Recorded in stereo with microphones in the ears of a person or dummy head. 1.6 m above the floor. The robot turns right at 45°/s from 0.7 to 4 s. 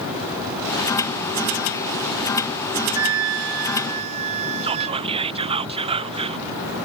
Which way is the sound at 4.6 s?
30° right (ahead or behind).